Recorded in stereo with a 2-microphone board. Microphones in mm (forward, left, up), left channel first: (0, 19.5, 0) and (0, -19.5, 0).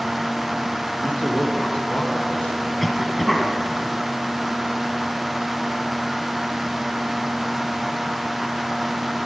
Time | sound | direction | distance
1.0 | a man speaking | 35° left (ahead or behind) | 1.7 m
2.8 | a cough | 5° left (ahead or behind) | 1.2 m